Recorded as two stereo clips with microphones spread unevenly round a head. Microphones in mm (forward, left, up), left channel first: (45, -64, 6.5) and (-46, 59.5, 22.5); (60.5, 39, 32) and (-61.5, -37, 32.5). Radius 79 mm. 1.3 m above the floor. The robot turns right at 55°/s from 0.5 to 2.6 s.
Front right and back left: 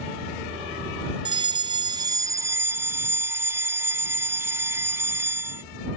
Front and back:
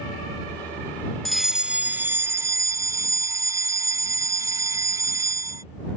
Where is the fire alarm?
115° left; by 5.6 s 170° right.